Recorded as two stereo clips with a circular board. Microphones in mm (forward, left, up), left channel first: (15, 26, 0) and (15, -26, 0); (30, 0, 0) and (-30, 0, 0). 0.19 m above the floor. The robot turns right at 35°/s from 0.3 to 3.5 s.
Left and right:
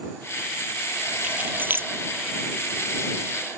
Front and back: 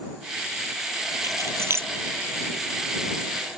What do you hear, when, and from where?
1.2 s keys jangling: 155° right; by 1.9 s 130° right